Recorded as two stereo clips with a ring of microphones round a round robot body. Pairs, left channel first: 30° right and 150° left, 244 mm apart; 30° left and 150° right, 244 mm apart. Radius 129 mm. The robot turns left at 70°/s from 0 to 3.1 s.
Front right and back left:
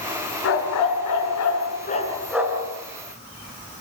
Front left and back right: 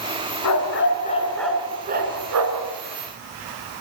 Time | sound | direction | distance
0.4 | a dog barking | 10° left | 4 m